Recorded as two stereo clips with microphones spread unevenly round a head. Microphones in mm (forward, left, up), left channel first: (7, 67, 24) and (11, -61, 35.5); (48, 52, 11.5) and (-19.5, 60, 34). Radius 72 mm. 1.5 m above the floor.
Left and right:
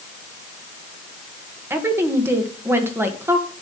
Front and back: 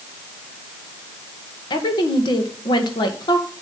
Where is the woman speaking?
15° right, 1.9 m.